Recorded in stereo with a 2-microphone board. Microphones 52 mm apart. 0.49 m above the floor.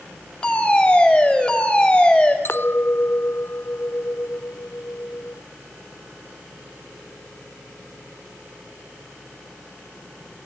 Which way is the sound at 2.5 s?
50° left (ahead or behind).